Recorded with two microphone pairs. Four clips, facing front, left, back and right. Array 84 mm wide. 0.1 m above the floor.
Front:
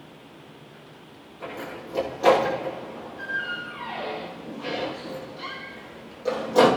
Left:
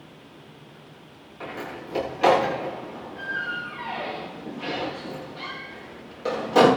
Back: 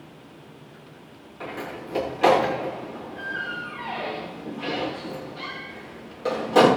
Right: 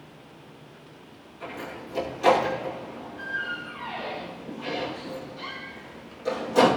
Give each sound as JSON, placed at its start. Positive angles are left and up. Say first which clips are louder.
{"t": 1.4, "sound": "a door slam", "louder": "left 2 dB, back 2 dB", "azimuth_deg": 135, "distance_m": 9.5}